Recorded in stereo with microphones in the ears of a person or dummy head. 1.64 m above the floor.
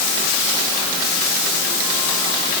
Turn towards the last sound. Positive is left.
No sound to turn to.